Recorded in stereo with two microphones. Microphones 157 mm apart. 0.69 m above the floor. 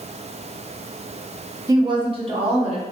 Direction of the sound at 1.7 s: 25° right (ahead or behind).